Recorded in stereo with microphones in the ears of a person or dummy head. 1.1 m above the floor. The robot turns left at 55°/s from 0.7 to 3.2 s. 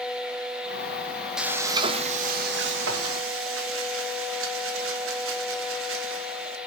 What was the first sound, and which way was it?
Frying, 5° right.